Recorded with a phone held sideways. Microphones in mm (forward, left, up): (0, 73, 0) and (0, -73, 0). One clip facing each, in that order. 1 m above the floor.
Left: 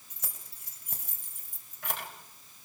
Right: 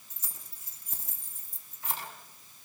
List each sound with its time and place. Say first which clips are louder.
0.1 s keys jangling: left 3 dB; 80° left, 4 m; by 2.1 s 85° left, 4 m